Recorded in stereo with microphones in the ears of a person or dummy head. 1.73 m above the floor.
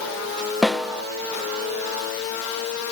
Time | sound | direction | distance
0.6 | a snare drum | 5° left (ahead or behind) | 0.9 m